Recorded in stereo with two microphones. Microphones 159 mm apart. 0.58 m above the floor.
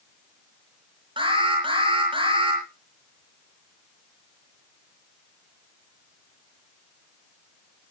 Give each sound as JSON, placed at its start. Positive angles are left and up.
{"t": 1.2, "sound": "an alarm", "side_deg": -30, "distance_m": 7.0}